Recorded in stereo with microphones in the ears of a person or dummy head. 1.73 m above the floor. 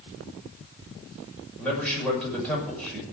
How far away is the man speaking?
About 6 m.